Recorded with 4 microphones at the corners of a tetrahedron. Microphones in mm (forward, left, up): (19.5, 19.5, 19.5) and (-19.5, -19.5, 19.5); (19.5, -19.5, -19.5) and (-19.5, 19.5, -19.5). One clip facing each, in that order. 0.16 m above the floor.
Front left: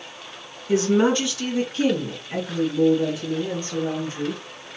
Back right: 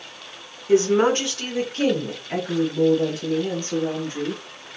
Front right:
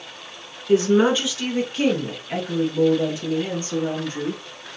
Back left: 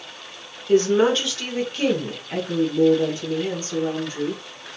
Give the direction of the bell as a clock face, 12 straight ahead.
No bell in this recording.